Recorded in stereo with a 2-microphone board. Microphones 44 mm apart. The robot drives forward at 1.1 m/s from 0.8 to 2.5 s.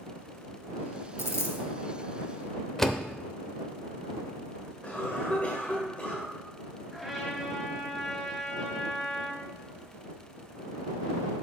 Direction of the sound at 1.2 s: 80° left.